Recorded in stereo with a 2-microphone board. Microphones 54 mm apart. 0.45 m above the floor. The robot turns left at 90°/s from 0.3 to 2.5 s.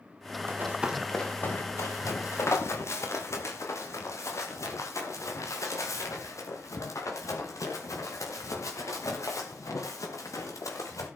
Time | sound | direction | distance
0.5 | running footsteps | 45° right (ahead or behind) | 5 m